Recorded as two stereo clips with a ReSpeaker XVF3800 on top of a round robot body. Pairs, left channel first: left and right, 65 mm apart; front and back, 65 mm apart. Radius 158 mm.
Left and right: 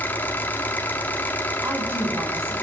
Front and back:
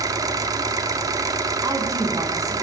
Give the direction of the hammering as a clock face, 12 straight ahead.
I don't hear hammering.